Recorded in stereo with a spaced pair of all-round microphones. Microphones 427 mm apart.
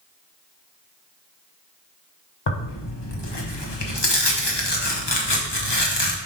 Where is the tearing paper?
65° left (ahead or behind), 1.1 m.